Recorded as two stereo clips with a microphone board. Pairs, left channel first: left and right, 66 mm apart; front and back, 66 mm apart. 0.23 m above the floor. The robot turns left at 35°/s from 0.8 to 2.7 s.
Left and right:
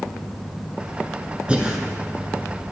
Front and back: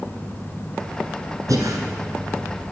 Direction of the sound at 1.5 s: 160° right.